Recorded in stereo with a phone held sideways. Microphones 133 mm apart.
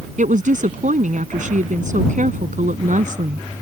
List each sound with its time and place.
0.2 s a woman speaking: 70° right (ahead or behind)